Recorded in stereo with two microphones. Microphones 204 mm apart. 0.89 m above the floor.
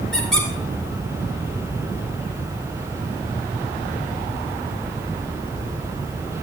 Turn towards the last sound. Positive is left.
turn(degrees=5)  # may be behind; listen again after turning